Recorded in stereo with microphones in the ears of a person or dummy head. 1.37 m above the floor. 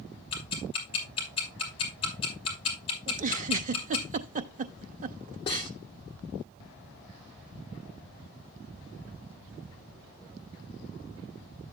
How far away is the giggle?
About 0.6 m.